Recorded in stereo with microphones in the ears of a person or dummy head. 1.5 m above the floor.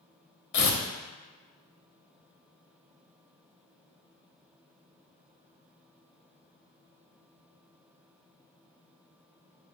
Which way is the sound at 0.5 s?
50° left (ahead or behind).